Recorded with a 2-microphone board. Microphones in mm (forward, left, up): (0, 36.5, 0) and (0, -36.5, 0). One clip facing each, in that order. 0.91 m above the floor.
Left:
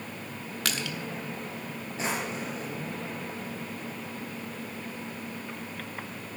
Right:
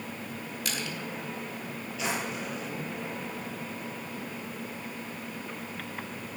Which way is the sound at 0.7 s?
80° left.